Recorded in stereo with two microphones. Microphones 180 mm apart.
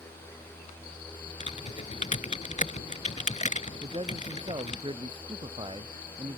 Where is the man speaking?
30° right (ahead or behind).